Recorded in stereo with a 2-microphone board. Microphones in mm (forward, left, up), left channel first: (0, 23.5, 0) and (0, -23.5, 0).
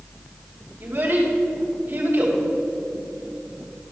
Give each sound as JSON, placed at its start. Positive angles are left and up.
{"t": 0.8, "sound": "a child speaking", "side_deg": -50, "distance_m": 2.5}